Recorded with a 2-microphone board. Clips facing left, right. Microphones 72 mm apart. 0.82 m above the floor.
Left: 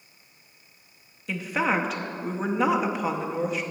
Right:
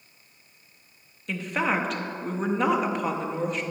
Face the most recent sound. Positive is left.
turn(degrees=0)  # may be behind; listen again after turning